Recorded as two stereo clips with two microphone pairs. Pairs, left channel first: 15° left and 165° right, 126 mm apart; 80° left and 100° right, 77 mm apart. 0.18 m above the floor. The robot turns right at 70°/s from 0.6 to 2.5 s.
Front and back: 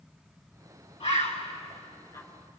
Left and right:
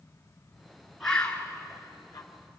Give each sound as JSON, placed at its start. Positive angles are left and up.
{"t": 1.0, "sound": "a bird", "azimuth_deg": -5, "distance_m": 2.0}